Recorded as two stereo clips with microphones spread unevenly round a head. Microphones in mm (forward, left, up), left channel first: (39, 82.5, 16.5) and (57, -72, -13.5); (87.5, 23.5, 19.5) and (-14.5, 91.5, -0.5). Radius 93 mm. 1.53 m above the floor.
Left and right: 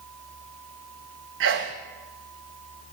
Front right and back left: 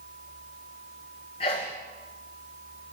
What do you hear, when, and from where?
1.4 s a sneeze: 90° right, 1.0 m